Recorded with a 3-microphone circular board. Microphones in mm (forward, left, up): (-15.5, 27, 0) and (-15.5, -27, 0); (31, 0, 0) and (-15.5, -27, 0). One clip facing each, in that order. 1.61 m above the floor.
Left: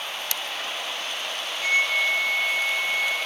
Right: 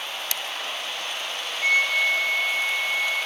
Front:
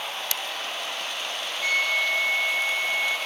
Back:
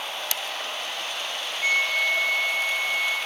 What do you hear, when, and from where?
1.6 s a flute: 75° right, 1.4 m